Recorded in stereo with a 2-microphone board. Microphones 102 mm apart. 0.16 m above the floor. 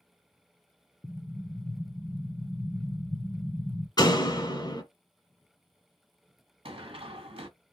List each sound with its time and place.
1.0 s an explosion: 30° left (ahead or behind), 0.7 m
4.0 s a door slam: 45° left (ahead or behind), 1.5 m
6.7 s running footsteps: 60° right (ahead or behind), 1.2 m